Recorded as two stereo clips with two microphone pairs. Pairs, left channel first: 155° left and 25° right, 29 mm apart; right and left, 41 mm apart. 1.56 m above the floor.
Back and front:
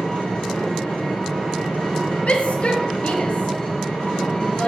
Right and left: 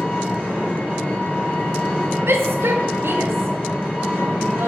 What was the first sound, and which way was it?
An engine running, 140° right.